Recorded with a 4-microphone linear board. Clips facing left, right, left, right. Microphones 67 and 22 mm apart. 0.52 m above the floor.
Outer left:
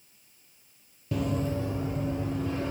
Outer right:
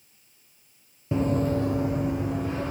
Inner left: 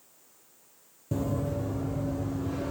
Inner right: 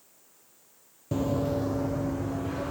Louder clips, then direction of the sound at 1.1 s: Outer right 5 dB, inner right 3 dB; 25° right (ahead or behind).